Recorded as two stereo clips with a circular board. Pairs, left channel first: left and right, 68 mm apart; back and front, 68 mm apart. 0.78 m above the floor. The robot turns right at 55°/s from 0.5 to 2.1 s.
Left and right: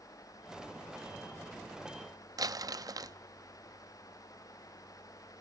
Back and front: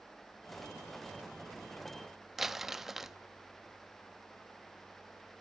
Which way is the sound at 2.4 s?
85° right.